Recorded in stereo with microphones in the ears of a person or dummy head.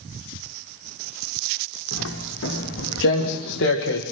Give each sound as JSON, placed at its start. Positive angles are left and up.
{"t": 1.9, "sound": "footsteps", "side_deg": 75, "distance_m": 4.5}